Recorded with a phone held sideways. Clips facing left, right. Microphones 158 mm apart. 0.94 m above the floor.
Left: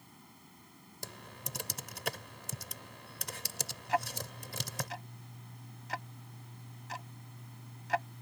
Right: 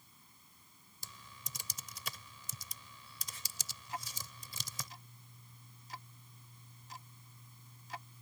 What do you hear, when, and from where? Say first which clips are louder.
0.0 s a fan: left 11 dB; 75° left (ahead or behind)
1.0 s typing on a keyboard: left 9 dB; 70° left (ahead or behind)
3.9 s ticking: left 13 dB; 90° left